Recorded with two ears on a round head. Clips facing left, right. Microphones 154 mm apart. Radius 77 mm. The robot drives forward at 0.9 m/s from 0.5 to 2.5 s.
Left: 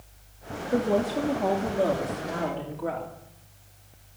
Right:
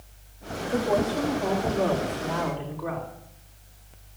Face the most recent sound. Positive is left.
turn(degrees=35)  # may be behind; listen again after turning